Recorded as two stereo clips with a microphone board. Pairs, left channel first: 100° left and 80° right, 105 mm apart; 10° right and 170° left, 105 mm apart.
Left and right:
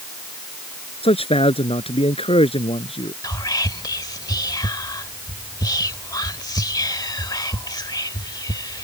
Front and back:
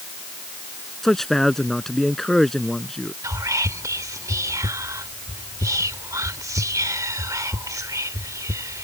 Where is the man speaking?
75° left.